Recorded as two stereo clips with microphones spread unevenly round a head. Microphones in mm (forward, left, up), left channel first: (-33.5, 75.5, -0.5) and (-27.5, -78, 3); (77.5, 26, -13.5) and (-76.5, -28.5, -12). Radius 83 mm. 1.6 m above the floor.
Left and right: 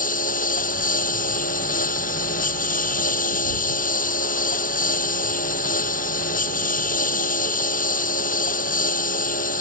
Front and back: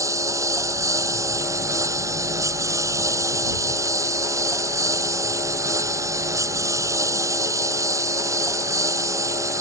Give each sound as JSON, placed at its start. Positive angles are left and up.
{"t": 0.0, "sound": "a lawn mower", "azimuth_deg": 125}